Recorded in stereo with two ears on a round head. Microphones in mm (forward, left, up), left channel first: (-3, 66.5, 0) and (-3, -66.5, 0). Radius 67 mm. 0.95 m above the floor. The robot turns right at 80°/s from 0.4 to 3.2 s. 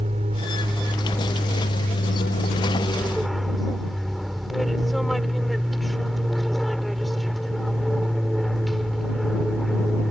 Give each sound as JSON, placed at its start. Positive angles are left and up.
{"t": 0.0, "sound": "an aircraft", "azimuth_deg": -45}